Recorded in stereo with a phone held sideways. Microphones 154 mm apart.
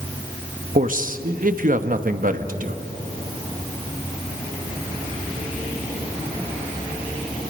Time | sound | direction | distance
0.8 | a man speaking | 60° right (ahead or behind) | 1.0 m